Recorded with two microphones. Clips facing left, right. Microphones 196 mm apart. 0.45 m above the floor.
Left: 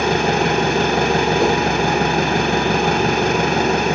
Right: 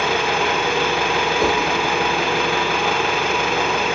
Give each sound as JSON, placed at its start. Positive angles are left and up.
{"t": 0.0, "sound": "an engine running", "side_deg": 45, "distance_m": 1.0}
{"t": 1.4, "sound": "a whoosh", "side_deg": 0, "distance_m": 1.7}